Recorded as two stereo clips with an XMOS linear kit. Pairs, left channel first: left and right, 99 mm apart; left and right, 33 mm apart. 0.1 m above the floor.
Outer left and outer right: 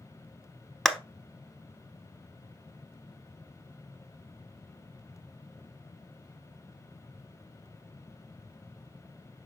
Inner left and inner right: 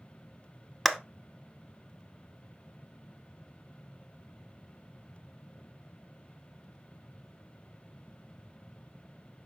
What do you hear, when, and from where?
0.8 s a clap: centre (ahead or behind), 0.9 m